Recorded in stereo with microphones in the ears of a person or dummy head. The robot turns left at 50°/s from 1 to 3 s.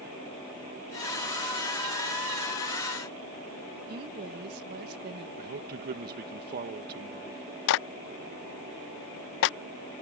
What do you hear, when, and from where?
3.9 s a woman speaking: 55° right (ahead or behind)
5.4 s a man speaking: 55° right (ahead or behind)
7.7 s a clap: 60° left (ahead or behind)